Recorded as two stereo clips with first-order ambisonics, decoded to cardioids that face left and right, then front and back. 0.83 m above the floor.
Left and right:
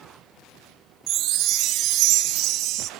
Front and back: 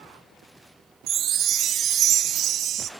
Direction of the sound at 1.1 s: 125° right.